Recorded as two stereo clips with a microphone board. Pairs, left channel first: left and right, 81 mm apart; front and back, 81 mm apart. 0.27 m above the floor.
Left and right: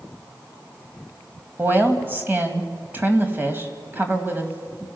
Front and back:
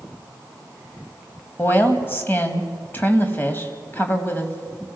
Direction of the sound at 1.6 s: 45° right.